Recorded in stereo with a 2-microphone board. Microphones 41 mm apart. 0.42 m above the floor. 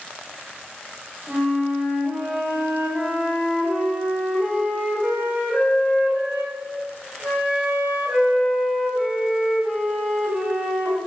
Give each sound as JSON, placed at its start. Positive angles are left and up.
{"t": 1.3, "sound": "a flute", "side_deg": -35, "distance_m": 1.5}